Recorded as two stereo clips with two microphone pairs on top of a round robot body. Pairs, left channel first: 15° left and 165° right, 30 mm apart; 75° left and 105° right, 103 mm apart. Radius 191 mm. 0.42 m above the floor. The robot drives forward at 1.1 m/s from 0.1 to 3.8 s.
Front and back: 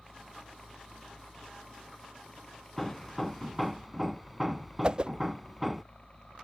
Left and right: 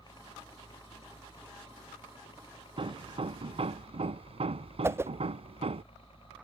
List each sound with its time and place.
0.0 s a helicopter: 105° left; by 6.4 s 55° left
2.8 s hammering: 65° right; by 5.8 s 80° right
4.8 s a whoosh: 140° right